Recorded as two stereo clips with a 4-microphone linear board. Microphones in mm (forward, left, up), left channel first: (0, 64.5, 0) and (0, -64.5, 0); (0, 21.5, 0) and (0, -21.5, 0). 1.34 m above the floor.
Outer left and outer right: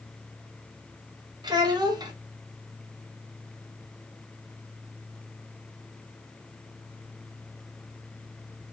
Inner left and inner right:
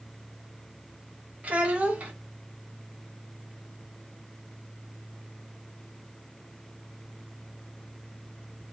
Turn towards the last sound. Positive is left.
turn(degrees=-30)  # may be behind; listen again after turning